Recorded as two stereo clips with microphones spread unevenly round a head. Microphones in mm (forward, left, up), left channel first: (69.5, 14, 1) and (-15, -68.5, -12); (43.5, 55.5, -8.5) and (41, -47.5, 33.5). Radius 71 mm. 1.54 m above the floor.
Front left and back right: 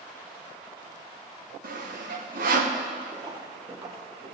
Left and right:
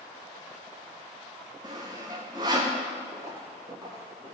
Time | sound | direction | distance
1.6 | sawing | 160° right | 0.9 m
3.1 | footsteps | 80° right | 2.5 m